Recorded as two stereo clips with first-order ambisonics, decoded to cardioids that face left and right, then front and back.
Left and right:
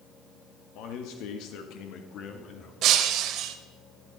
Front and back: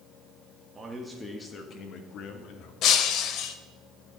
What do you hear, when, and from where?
0.8 s a man speaking: 105° left, 1.5 m; by 2.7 s 30° left, 2.5 m
2.8 s breaking glass: 45° right, 1.4 m